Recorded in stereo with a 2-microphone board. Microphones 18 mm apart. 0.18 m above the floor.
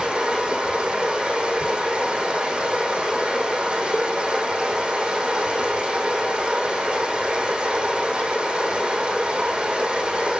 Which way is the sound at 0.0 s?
70° right (ahead or behind).